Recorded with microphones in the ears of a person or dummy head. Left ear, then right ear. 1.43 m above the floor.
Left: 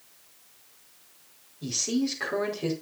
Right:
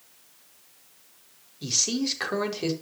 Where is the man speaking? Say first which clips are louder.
Right 3 dB; 40° right (ahead or behind), 4.5 m.